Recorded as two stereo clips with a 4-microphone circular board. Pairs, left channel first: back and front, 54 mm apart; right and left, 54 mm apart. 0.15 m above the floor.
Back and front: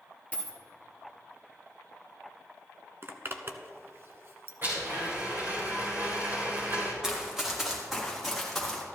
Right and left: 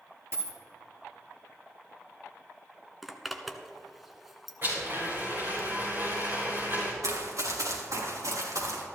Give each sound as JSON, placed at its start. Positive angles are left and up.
{"t": 0.3, "sound": "a dropped coin", "azimuth_deg": 120, "distance_m": 1.6}
{"t": 3.0, "sound": "a zipper", "azimuth_deg": 0, "distance_m": 0.9}
{"t": 4.6, "sound": "a blender", "azimuth_deg": 45, "distance_m": 4.0}
{"t": 7.0, "sound": "running footsteps", "azimuth_deg": 80, "distance_m": 3.5}